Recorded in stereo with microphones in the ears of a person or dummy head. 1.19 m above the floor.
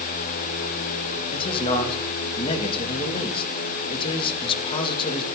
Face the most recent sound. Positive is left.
turn(degrees=35)  # may be behind; listen again after turning